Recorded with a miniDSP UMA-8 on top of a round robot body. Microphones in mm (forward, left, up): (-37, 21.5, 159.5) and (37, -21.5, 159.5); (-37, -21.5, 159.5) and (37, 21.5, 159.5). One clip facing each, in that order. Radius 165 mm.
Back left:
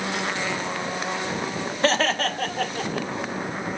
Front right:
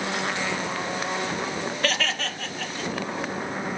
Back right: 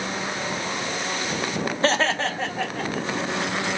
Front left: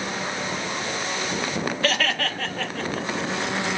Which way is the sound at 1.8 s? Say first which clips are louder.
Back left 8 dB, back right 5 dB; straight behind.